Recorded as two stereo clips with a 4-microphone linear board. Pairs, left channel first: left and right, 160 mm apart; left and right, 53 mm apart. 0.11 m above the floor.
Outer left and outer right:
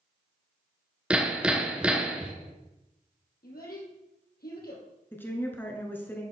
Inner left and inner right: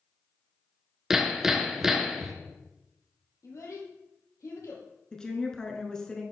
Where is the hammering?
5° right (ahead or behind), 0.8 m.